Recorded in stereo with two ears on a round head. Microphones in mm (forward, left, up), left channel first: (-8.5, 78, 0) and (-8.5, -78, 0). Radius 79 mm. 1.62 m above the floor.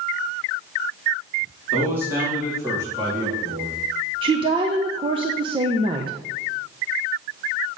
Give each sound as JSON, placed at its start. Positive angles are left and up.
{"t": 1.7, "sound": "a man speaking", "side_deg": -10, "distance_m": 4.0}
{"t": 4.2, "sound": "a woman speaking", "side_deg": -30, "distance_m": 0.8}